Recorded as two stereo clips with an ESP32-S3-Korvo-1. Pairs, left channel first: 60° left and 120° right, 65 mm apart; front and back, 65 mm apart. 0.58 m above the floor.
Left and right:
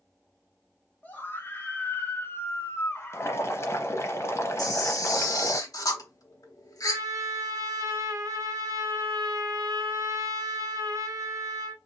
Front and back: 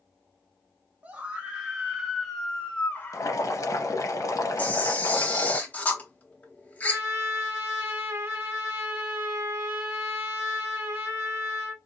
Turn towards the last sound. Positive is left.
turn(degrees=-125)